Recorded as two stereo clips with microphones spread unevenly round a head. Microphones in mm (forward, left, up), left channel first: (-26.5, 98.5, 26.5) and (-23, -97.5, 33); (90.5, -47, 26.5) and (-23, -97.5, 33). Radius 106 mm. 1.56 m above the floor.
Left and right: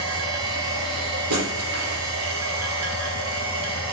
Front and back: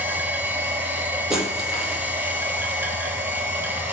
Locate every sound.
0.0 s a machine running: 85° right, 2.5 m
1.3 s breaking glass: 70° right, 5.5 m